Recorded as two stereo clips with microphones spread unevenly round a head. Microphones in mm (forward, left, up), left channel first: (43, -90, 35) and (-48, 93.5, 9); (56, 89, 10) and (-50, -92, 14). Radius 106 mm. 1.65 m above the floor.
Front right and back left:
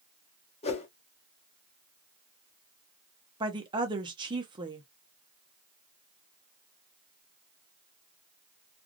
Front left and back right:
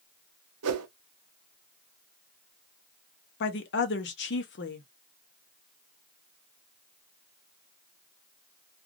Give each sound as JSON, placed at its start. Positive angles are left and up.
{"t": 0.6, "sound": "a whoosh", "azimuth_deg": -120, "distance_m": 0.6}
{"t": 3.4, "sound": "a woman speaking", "azimuth_deg": 45, "distance_m": 0.7}